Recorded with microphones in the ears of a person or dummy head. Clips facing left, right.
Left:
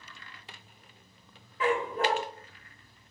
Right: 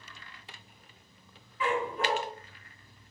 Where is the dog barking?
20° left (ahead or behind), 1.2 m.